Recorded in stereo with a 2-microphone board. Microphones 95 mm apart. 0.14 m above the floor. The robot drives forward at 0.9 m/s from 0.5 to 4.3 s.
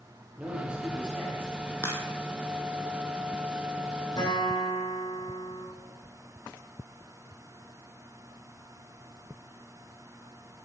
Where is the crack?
30° left (ahead or behind), 2.5 m; by 2.0 s 25° left (ahead or behind), 3 m.